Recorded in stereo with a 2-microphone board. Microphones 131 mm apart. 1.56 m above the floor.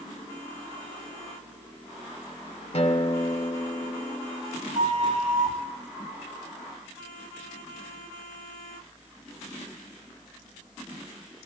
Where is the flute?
65° right (ahead or behind), 8.5 m.